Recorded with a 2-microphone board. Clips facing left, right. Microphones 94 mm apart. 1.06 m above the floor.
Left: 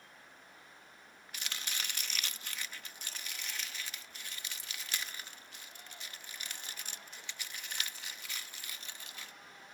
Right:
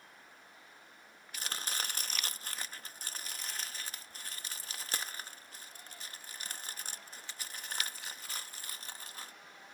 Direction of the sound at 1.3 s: 40° right (ahead or behind).